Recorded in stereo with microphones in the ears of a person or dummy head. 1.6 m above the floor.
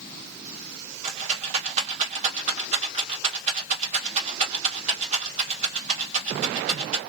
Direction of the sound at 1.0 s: 45° right (ahead or behind).